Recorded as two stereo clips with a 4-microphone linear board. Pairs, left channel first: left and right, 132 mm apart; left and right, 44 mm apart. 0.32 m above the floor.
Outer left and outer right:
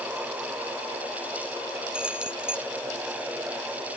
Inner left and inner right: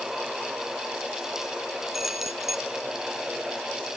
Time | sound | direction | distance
1.9 | keys jangling | 10° right (ahead or behind) | ?